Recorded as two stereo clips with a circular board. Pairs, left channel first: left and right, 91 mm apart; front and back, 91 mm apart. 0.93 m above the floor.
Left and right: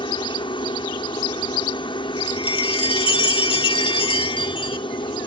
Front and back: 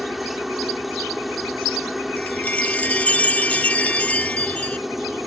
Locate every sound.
0.0 s a helicopter: 90° left
2.2 s a chime: 75° left